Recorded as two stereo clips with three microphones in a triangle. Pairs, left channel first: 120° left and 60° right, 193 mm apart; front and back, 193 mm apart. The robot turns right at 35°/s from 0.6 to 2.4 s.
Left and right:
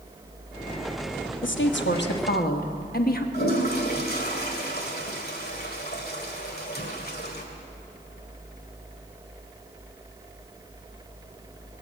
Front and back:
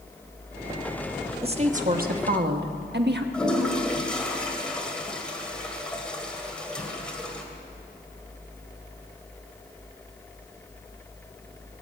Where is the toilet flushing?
85° left, 1.9 m.